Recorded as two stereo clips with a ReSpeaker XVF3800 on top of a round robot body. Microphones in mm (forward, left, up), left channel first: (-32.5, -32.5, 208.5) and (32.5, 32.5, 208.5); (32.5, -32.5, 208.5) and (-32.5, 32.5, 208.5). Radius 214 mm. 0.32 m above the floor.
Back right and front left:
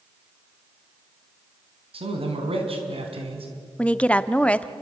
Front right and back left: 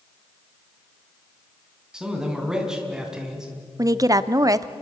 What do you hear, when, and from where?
1.9 s a man speaking: 50° left, 4 m
3.8 s a woman speaking: 155° left, 1.1 m